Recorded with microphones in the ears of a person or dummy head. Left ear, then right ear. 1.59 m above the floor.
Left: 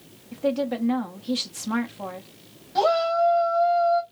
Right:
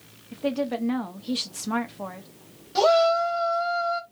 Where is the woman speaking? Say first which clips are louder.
Left 2 dB; 5° right (ahead or behind), 0.6 m.